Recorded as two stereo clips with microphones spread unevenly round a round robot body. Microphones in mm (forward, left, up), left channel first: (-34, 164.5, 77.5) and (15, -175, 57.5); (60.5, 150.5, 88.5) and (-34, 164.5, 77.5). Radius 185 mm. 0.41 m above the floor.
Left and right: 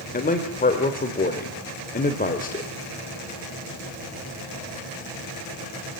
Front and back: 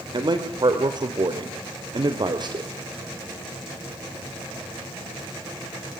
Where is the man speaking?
160° left, 2.0 m.